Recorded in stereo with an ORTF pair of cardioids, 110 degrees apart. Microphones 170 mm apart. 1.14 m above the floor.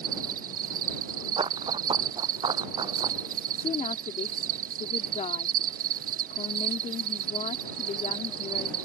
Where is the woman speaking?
45° left.